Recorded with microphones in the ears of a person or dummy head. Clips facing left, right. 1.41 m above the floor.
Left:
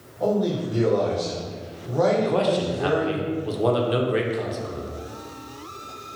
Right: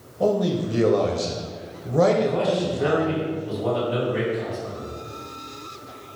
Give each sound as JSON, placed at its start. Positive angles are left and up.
{"t": 0.2, "sound": "a man speaking", "side_deg": -45, "distance_m": 0.7}
{"t": 2.2, "sound": "a man speaking", "side_deg": 70, "distance_m": 0.8}